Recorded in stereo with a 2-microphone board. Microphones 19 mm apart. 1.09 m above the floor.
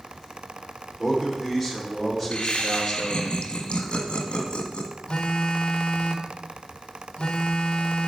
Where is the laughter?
75° left (ahead or behind), 1.5 m.